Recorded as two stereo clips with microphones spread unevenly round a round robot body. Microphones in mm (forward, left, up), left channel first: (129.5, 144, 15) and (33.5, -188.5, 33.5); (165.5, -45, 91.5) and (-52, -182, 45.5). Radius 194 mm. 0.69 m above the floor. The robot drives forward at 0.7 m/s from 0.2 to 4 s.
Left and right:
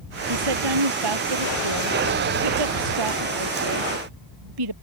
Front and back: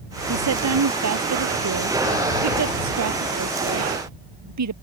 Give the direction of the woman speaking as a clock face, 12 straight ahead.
5 o'clock.